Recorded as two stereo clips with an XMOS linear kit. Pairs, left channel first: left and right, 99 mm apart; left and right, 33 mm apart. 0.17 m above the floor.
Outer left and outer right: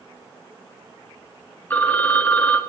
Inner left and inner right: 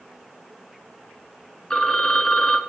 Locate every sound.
1.7 s a phone ringing: 20° left (ahead or behind), 1.1 m